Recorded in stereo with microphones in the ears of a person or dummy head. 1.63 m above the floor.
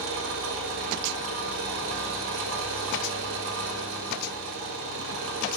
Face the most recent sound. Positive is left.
turn(degrees=-85)